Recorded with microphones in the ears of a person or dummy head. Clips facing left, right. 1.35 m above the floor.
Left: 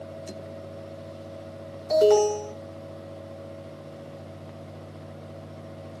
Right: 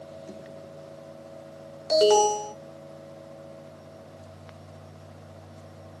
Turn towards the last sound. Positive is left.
turn(degrees=-40)  # may be behind; listen again after turning